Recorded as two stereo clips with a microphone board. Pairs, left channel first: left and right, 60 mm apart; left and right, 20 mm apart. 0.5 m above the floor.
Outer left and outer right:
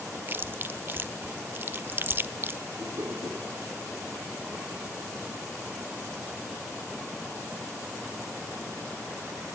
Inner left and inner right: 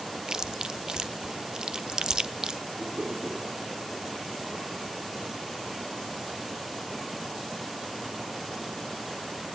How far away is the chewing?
About 0.6 m.